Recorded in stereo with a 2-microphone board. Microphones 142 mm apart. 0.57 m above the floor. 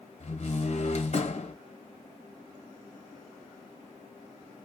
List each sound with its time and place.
0.2 s a door slam: 50° left (ahead or behind), 1.5 m